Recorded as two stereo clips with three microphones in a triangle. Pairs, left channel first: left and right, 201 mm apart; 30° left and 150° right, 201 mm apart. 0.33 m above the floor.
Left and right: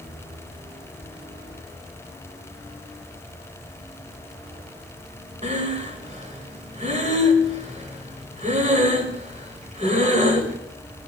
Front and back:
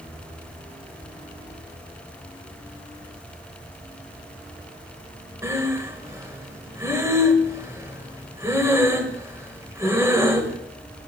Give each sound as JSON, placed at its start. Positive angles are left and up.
{"t": 5.4, "sound": "breathing", "azimuth_deg": -85, "distance_m": 1.6}